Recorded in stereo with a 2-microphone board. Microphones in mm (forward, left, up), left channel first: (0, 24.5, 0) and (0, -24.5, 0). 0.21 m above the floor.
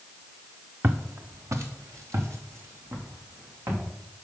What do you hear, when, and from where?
0.8 s footsteps: 55° right (ahead or behind), 1.0 m; by 3.8 s 75° right (ahead or behind), 4.5 m